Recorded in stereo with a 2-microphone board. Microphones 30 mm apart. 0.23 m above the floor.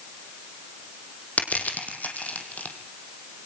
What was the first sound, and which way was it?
Crushing, 65° left (ahead or behind).